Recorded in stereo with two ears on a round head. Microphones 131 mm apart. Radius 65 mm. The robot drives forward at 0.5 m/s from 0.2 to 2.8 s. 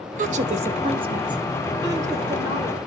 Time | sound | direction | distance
0.2 | a woman speaking | 60° right (ahead or behind) | 0.6 m